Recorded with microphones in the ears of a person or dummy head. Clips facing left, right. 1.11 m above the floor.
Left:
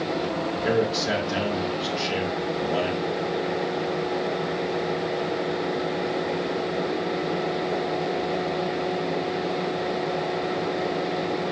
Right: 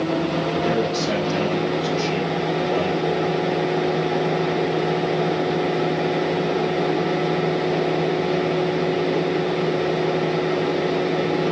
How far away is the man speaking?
About 2.5 m.